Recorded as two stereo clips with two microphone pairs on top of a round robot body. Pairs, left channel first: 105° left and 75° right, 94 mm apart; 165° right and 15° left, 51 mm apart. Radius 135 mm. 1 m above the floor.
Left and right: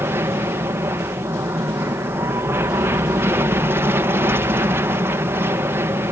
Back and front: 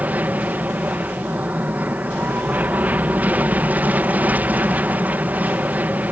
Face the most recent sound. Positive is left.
turn(degrees=-35)